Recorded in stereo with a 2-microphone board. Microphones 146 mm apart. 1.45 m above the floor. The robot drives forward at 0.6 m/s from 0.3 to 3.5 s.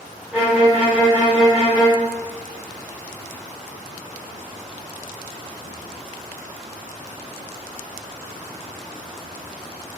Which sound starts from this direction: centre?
A violin, at 0.3 s.